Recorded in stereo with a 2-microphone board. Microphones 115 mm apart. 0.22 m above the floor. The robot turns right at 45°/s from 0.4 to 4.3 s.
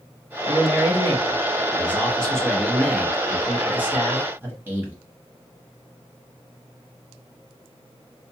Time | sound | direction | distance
0.5 | a man speaking | 20° left (ahead or behind) | 1.0 m